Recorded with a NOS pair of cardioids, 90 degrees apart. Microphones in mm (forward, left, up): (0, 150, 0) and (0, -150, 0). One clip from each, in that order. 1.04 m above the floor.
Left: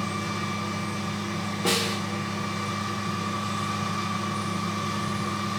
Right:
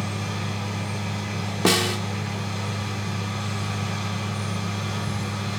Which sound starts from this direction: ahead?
A machine running, at 0.0 s.